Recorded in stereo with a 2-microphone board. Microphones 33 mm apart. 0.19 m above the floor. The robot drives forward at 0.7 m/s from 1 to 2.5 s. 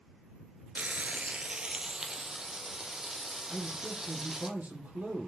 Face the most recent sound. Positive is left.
turn(degrees=-50)  # may be behind; listen again after turning